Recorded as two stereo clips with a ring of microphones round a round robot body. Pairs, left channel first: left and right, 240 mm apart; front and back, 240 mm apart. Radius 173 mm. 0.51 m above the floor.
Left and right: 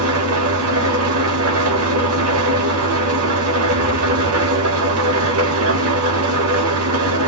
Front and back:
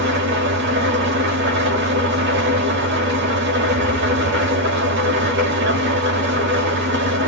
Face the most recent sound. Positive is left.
turn(degrees=-125)